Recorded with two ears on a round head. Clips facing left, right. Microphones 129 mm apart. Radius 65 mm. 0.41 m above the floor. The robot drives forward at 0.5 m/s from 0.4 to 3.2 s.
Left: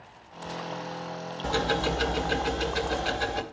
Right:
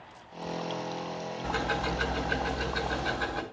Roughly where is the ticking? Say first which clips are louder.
Left 5 dB; left.